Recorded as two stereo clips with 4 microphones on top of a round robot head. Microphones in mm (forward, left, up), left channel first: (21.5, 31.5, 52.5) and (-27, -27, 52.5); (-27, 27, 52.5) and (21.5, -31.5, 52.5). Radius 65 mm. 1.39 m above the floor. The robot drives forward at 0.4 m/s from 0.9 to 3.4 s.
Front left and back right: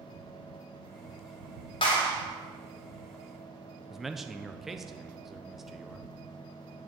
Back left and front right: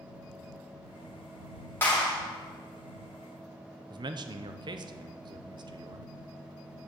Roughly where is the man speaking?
Ahead right.